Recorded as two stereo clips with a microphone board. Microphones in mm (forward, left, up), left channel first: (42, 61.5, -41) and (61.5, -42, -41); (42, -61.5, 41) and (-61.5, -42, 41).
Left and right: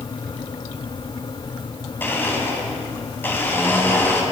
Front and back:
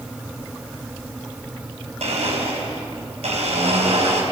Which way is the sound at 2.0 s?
170° left.